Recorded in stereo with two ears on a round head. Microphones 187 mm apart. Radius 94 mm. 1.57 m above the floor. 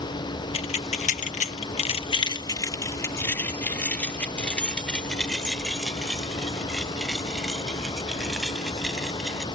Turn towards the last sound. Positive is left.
turn(degrees=0)  # may be behind; listen again after turning